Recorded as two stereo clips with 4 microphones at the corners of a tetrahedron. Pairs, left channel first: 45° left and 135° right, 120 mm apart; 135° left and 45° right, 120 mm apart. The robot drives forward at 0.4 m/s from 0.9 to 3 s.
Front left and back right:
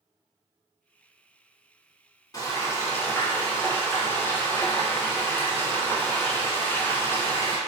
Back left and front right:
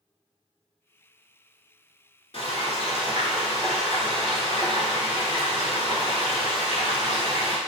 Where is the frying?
100° left, 0.9 m; by 7.6 s 115° left, 1.0 m.